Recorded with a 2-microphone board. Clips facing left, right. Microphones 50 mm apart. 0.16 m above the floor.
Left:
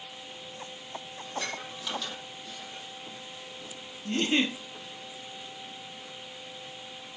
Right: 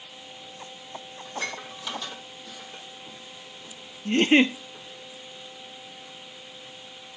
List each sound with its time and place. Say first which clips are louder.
1.2 s dishes clattering: right 3 dB; 10° right (ahead or behind), 3.5 m
4.0 s a giggle: right 8 dB; 45° right (ahead or behind), 1.1 m